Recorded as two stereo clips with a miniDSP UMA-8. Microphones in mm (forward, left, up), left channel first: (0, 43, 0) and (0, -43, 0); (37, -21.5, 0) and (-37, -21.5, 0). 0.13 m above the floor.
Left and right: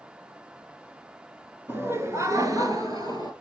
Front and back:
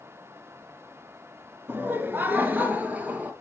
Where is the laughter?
140° right, 1.5 m; by 3.3 s 110° right, 2.5 m.